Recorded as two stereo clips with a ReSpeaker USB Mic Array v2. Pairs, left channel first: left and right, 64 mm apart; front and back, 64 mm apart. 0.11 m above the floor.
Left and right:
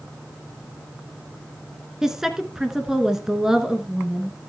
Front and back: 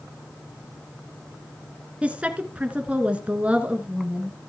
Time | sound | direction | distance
2.0 | a woman speaking | 160° right | 1.1 m